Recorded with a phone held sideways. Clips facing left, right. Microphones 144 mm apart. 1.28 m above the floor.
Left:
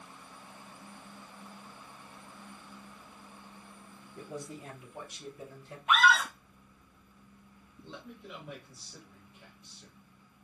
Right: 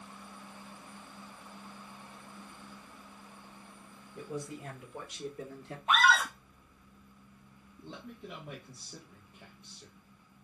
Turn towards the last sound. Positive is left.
turn(degrees=-60)  # may be behind; listen again after turning